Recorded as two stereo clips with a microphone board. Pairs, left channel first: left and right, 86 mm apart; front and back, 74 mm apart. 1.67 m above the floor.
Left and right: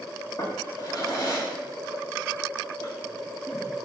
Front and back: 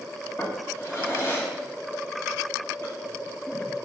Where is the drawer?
50° left, 2 m.